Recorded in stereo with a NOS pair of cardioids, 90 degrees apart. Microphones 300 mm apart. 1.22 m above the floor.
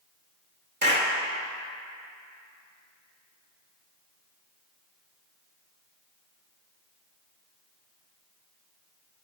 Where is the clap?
35° right, 2 m.